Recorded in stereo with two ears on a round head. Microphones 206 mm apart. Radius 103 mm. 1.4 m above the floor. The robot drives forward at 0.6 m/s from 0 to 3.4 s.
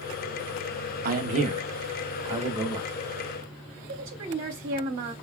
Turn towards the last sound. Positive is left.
turn(degrees=-40)  # may be behind; listen again after turning